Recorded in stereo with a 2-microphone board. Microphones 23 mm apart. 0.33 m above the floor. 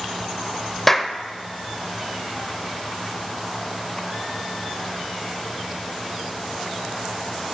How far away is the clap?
About 0.7 m.